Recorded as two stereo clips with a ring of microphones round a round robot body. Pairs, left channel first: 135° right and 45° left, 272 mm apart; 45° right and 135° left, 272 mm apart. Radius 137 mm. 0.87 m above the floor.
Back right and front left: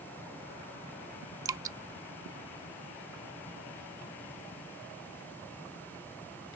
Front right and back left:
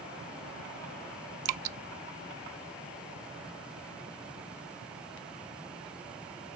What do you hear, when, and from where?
1.4 s dripping: 125° left